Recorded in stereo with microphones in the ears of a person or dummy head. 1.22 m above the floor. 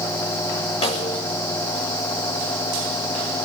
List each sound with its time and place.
0.8 s a snare drum: 40° left (ahead or behind), 6 m